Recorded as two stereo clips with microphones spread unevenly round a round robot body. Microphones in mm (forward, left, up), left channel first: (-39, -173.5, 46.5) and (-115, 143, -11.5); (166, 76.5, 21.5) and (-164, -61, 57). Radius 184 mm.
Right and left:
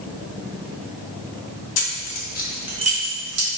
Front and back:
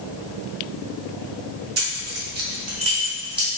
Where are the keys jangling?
95° right, 1.2 m; by 3.5 s 110° left, 1.4 m.